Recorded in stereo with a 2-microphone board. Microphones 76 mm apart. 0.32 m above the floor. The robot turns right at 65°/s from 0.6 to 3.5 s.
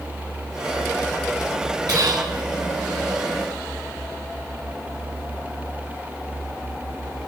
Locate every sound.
1.9 s whispering: 50° right (ahead or behind), 3.5 m; by 2.3 s 70° right (ahead or behind), 3.5 m